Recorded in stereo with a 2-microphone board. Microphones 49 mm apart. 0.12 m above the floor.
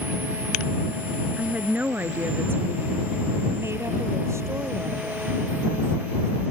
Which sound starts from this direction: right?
A woman speaking, at 1.4 s.